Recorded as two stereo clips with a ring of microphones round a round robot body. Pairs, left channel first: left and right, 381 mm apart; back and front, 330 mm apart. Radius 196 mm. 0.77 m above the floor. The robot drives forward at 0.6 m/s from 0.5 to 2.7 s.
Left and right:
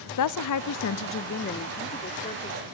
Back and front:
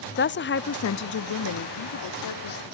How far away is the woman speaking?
About 0.7 m.